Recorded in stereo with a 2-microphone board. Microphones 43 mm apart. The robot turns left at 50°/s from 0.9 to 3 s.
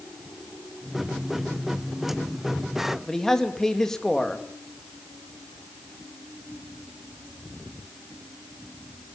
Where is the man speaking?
10° left (ahead or behind), 2.5 m.